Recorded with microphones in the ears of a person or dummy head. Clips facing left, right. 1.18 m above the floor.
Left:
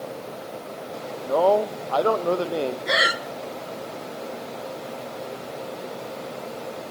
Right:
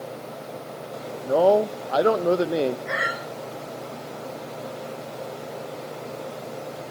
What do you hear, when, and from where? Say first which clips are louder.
1.3 s a man speaking: right 1 dB; 15° right (ahead or behind), 0.6 m
2.9 s breathing: left 4 dB; 45° left (ahead or behind), 1.2 m